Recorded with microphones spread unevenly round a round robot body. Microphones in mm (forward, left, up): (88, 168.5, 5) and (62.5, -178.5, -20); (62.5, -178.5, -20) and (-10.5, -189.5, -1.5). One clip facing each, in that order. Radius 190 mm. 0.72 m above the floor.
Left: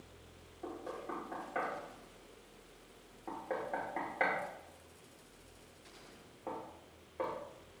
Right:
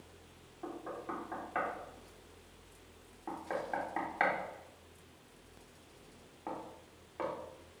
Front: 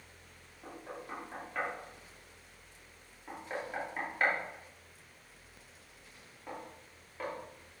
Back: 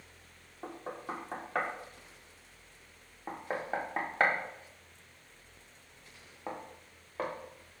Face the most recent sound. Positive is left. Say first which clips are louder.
# right 1 dB, back 4 dB
turn(degrees=-160)